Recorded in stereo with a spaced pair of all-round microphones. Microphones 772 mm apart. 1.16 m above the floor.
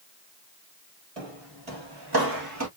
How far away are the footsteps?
About 1.6 m.